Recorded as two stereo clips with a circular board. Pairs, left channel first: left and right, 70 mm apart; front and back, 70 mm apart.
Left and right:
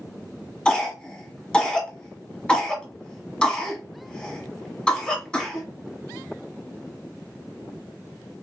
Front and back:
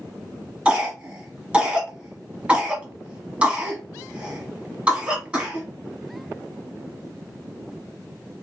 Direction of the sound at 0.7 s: 140° left.